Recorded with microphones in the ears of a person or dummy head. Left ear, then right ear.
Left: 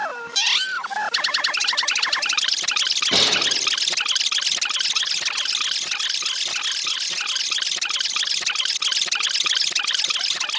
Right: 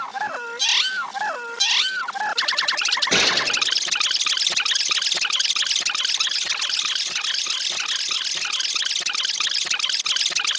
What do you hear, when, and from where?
3.1 s a gunshot: 35° right (ahead or behind), 8 m